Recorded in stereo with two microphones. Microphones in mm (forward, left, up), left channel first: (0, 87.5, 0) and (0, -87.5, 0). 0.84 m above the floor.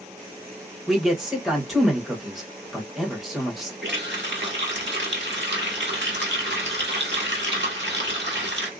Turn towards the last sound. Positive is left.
turn(degrees=-85)